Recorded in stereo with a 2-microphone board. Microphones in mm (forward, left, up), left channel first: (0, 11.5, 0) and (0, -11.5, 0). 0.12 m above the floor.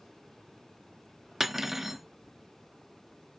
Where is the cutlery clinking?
15° right (ahead or behind), 1.0 m.